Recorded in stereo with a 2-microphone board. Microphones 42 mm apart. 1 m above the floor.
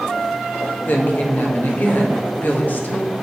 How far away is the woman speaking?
About 1.1 m.